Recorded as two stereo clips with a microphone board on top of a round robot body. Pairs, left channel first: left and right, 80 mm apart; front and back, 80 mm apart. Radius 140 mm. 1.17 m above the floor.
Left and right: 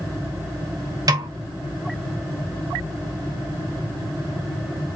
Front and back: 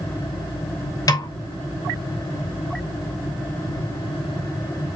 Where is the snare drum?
45° right, 0.7 m.